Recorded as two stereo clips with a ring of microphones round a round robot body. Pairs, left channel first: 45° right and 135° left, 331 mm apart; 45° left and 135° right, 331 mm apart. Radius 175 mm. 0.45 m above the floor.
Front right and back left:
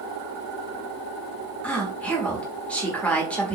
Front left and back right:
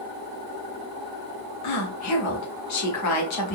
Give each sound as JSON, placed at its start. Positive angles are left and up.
{"t": 1.6, "sound": "a woman speaking", "azimuth_deg": 40, "distance_m": 1.2}